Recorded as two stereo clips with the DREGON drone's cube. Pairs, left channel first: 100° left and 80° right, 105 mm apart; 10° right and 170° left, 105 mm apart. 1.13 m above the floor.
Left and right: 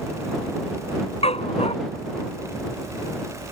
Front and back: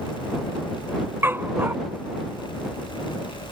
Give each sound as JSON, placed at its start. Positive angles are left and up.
{"t": 1.2, "sound": "a dog barking", "azimuth_deg": 100}